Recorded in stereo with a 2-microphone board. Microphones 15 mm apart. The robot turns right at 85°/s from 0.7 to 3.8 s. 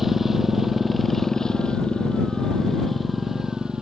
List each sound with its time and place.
0.0 s a motorcycle: 15° right; by 3.8 s 115° right